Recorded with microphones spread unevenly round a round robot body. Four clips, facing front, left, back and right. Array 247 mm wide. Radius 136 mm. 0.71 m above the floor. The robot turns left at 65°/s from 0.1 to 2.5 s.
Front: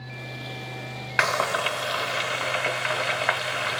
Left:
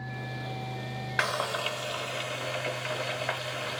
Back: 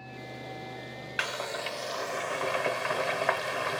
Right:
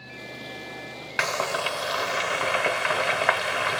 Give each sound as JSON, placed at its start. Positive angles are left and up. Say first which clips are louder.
{"t": 1.2, "sound": "frying", "louder": "right 4 dB, front 11 dB", "azimuth_deg": -15, "distance_m": 0.6}